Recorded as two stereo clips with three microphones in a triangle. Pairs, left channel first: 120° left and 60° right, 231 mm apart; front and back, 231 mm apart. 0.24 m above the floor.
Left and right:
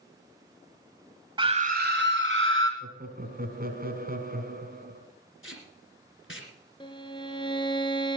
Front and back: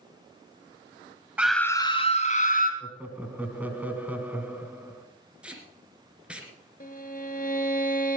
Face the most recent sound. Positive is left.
turn(degrees=50)